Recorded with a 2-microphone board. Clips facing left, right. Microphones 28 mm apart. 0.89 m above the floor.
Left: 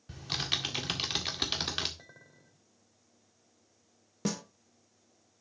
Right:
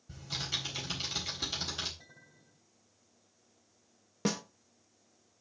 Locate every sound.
0.1 s typing on a keyboard: 70° left (ahead or behind), 1.9 m
2.0 s a clink: 75° left (ahead or behind), 2.5 m
4.2 s a snare drum: 20° right (ahead or behind), 0.9 m